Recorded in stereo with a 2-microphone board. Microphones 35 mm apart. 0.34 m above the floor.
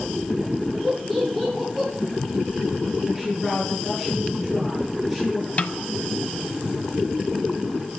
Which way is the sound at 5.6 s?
35° left (ahead or behind).